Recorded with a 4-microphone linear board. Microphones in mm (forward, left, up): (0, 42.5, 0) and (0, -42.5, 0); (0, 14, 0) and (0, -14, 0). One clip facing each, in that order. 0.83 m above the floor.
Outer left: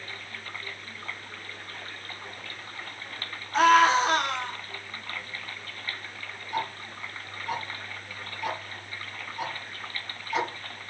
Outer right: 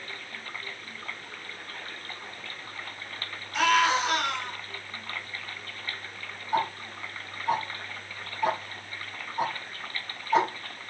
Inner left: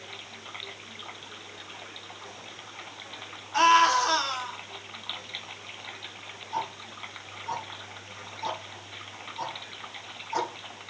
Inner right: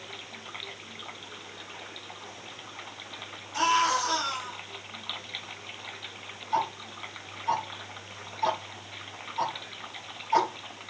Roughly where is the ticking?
Right.